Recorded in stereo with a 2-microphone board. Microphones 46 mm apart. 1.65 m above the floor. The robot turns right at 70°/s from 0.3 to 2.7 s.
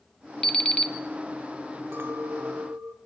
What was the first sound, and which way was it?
An alarm clock, 15° left (ahead or behind).